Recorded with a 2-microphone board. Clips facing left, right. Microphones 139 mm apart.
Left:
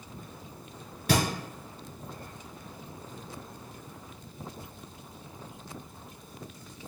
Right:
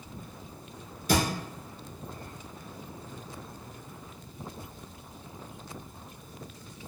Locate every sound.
1.1 s a thud: 80° left, 1.4 m